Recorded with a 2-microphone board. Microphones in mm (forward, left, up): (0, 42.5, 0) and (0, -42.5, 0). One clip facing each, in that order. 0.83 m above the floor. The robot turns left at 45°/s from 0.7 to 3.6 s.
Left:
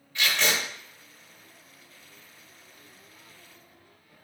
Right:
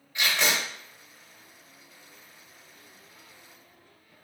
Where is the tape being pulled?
20° right (ahead or behind), 1.4 m.